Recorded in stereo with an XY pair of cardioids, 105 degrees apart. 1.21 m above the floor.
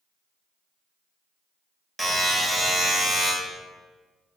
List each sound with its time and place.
2.0 s a buzzer: 20° right, 1.1 m